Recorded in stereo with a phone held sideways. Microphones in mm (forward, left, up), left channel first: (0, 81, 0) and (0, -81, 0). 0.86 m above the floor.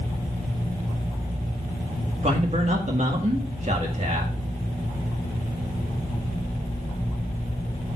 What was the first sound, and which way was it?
A man speaking, 45° right (ahead or behind).